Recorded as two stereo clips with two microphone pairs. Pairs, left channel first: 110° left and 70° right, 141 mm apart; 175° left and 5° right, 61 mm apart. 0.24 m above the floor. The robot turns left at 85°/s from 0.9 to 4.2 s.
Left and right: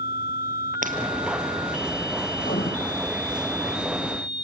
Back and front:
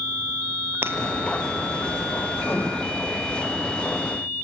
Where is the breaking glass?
55° right, 1.9 m; by 1.0 s 60° right, 1.9 m.